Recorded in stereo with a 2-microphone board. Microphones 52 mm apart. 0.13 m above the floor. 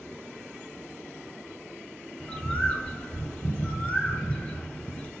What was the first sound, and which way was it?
A bird, 20° left (ahead or behind).